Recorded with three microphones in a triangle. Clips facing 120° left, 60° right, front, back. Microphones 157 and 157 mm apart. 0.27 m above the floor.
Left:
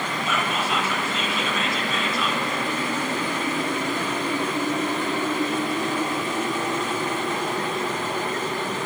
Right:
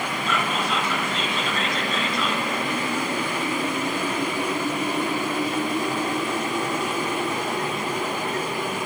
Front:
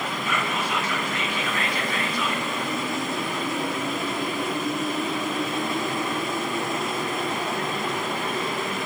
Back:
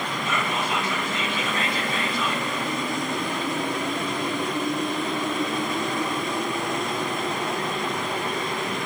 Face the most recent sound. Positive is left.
turn(degrees=-160)